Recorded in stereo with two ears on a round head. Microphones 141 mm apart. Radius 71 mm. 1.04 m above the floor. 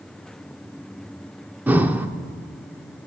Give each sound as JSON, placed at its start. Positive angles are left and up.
{"t": 1.7, "sound": "breathing", "side_deg": -10, "distance_m": 0.7}